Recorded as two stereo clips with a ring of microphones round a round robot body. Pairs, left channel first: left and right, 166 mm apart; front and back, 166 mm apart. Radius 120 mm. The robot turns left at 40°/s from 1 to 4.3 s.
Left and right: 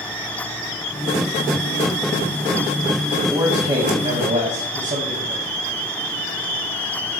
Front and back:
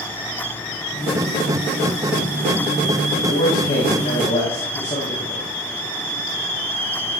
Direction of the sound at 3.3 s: 15° right.